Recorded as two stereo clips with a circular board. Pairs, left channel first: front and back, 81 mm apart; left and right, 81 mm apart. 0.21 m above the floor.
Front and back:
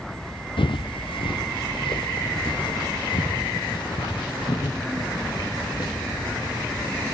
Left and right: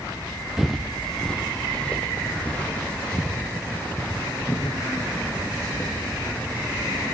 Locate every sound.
0.6 s footsteps: 5° right, 1.0 m; by 7.0 s 25° left, 5 m